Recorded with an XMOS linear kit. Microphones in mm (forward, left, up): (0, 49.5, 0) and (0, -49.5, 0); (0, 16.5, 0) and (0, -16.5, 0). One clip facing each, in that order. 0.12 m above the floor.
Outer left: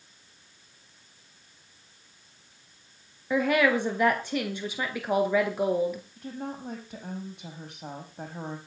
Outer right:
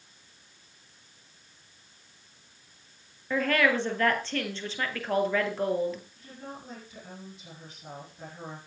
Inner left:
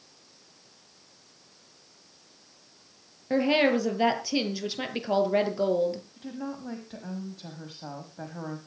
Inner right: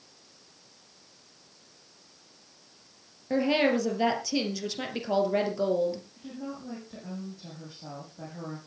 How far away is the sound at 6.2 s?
About 6 m.